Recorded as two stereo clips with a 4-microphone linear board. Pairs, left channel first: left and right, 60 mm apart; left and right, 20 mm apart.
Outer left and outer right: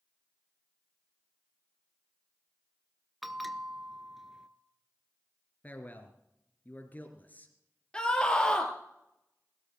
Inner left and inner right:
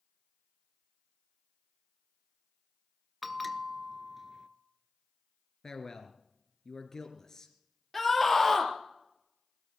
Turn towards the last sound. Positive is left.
turn(degrees=15)  # may be behind; listen again after turning